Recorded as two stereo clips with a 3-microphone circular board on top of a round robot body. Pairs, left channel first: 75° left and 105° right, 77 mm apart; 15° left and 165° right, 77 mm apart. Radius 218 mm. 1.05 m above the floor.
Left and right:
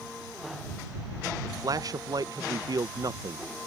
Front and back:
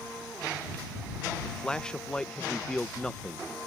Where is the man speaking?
65° right.